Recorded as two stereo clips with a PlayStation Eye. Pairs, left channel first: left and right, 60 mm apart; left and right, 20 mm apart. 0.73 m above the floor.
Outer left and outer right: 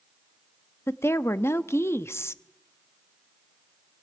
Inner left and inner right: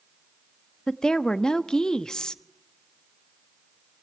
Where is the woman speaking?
45° left (ahead or behind), 1.0 m.